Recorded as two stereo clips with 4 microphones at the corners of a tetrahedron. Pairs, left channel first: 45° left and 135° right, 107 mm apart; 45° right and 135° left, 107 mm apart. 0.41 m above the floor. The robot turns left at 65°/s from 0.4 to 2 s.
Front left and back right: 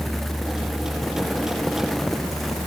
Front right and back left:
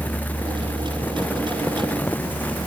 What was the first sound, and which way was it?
Only background noise.